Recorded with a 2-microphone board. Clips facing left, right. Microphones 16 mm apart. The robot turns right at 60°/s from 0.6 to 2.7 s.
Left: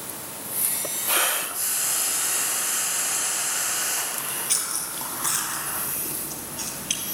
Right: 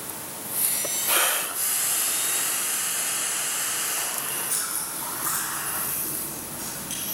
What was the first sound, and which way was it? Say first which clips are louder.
Frying: left 1 dB; 10° left.